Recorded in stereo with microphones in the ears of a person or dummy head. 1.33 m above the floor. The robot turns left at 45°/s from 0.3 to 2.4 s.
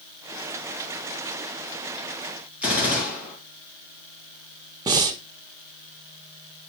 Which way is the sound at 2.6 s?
10° right (ahead or behind).